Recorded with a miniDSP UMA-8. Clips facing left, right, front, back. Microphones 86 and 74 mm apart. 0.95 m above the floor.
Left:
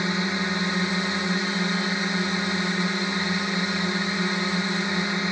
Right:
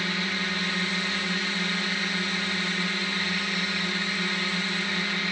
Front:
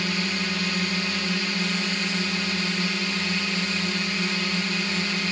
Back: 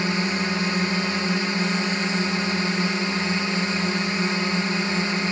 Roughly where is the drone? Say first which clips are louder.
Left 4 dB, back 4 dB; behind left.